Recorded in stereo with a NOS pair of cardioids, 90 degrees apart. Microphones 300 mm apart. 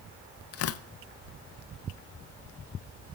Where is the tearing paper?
50° left, 0.5 m.